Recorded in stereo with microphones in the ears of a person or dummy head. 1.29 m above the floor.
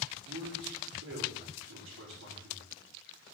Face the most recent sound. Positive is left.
turn(degrees=-75)  # may be behind; listen again after turning